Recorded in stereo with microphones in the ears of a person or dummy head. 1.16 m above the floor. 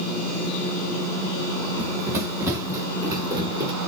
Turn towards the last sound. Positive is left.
turn(degrees=-20)  # may be behind; listen again after turning